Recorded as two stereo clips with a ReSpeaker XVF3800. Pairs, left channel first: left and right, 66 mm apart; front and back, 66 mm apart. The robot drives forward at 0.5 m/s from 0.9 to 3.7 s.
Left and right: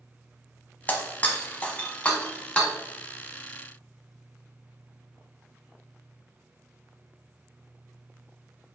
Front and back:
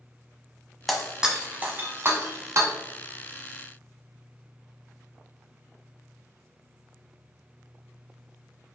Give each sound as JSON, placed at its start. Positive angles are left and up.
{"t": 0.9, "sound": "breaking glass", "azimuth_deg": 85, "distance_m": 0.8}